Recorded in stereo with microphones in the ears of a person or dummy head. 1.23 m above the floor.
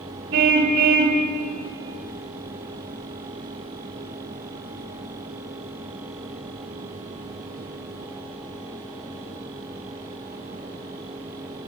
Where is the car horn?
60° right (ahead or behind), 3 m.